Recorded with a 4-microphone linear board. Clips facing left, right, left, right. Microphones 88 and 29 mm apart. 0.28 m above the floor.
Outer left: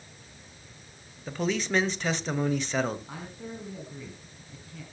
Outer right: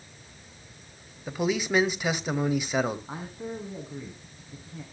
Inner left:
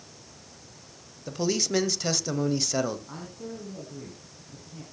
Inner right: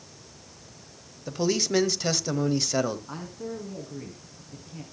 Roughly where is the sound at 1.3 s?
Centre.